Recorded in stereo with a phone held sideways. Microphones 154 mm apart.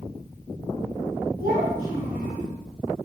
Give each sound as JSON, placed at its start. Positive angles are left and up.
{"t": 1.4, "sound": "a child speaking", "side_deg": -80, "distance_m": 4.0}